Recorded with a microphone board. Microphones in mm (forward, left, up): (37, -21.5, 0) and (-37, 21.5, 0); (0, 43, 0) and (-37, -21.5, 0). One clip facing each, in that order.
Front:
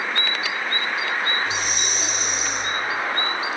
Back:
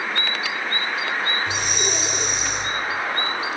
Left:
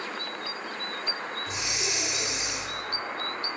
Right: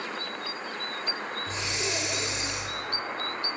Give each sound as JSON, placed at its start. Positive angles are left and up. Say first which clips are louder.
{"t": 1.5, "sound": "breathing", "louder": "back 1 dB, right 1 dB", "azimuth_deg": -175, "distance_m": 4.0}